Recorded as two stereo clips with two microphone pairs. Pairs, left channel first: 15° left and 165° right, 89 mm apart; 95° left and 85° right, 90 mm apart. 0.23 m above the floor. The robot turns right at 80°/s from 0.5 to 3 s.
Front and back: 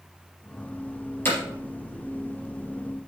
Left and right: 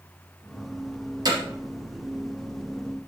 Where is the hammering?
50° right, 4 m; by 1.4 s 40° right, 4 m.